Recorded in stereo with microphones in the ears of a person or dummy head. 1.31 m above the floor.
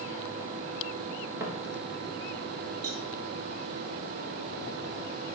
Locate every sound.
1.4 s footsteps: 20° right (ahead or behind), 1.8 m
2.8 s a cowbell: 55° right (ahead or behind), 1.4 m